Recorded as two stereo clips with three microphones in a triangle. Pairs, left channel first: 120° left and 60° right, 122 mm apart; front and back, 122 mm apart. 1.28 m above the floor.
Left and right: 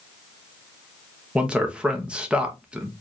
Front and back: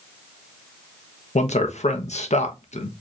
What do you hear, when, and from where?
1.4 s a man speaking: 20° left, 0.9 m